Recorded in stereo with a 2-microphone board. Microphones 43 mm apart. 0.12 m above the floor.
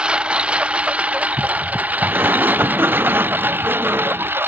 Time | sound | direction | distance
0.0 | a lawn mower | 25° right (ahead or behind) | ?
2.1 | a sliding door | 60° right (ahead or behind) | ?